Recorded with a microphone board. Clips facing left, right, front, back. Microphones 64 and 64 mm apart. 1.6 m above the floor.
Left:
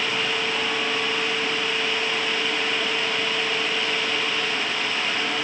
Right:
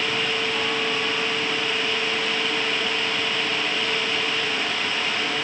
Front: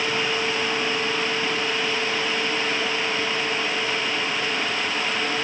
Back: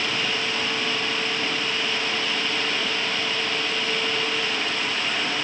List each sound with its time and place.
Only background noise.